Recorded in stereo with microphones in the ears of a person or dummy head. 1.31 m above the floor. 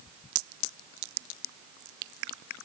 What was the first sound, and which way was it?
Only background noise.